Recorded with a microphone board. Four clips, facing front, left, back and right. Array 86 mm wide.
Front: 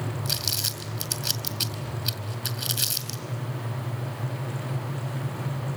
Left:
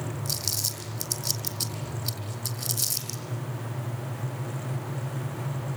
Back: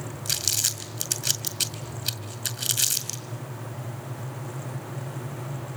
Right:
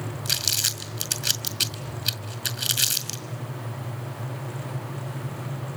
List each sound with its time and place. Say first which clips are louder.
0.2 s crumpling: right 2 dB, front 2 dB; 105° right, 4.5 m